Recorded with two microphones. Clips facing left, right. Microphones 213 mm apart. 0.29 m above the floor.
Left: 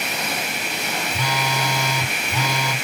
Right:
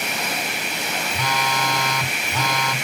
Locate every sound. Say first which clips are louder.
1.1 s a phone buzzing: right 1 dB; 10° left (ahead or behind), 0.9 m